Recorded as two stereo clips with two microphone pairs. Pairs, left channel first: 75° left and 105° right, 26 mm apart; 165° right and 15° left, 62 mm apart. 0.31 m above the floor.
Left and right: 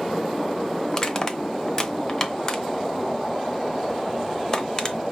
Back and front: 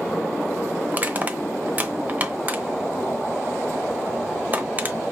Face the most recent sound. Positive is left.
turn(degrees=45)